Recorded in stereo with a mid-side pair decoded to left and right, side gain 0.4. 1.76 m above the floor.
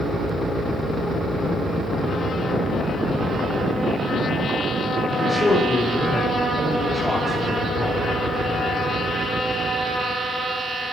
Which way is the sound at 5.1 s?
10° left.